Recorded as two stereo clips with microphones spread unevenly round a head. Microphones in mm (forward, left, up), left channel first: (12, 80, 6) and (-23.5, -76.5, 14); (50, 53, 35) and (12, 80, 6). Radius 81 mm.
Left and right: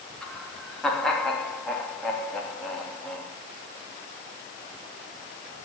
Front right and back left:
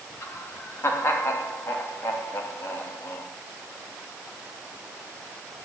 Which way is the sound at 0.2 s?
10° right.